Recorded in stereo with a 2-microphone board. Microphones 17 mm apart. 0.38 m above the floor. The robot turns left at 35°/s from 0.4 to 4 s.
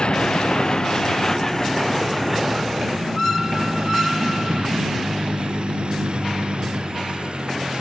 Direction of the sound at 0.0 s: 60° left (ahead or behind).